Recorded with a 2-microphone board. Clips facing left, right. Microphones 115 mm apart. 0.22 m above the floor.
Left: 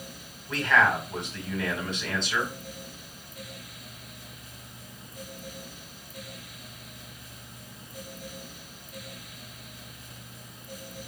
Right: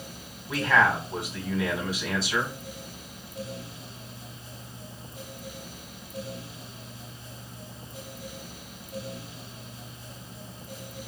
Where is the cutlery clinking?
No cutlery clinking in this recording.